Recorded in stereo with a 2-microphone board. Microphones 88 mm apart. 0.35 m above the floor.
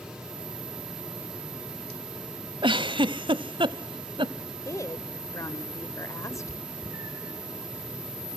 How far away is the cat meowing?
About 3 m.